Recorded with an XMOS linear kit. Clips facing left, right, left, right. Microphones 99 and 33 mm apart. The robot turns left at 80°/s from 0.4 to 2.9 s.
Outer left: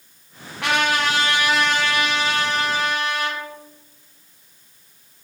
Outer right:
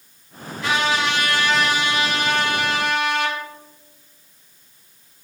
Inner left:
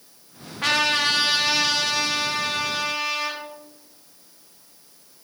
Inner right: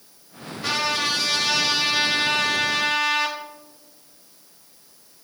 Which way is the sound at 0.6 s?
80° left.